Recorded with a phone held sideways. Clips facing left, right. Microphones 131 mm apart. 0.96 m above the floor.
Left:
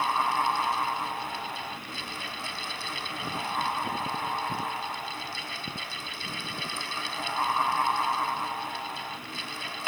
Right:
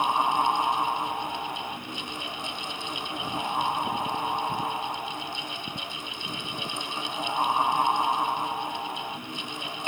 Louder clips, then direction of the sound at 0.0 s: Right 2 dB; 20° right (ahead or behind).